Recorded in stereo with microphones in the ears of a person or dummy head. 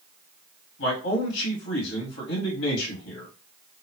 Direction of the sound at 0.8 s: 60° left (ahead or behind).